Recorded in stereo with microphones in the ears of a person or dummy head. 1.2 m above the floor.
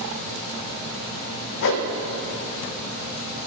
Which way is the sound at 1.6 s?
65° left (ahead or behind).